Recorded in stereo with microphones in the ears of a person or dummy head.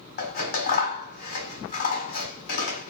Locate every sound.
0.2 s scissors: 50° left (ahead or behind), 1.3 m